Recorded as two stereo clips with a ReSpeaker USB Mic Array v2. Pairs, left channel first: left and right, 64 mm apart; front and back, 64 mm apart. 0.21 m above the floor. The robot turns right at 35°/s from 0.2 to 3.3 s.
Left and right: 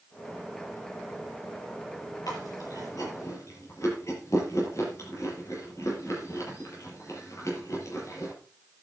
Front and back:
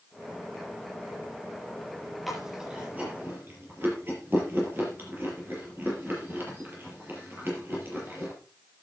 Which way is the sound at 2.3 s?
90° left.